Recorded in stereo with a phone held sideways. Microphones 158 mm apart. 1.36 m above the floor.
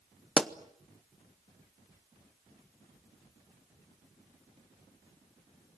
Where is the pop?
5° left (ahead or behind), 0.8 m.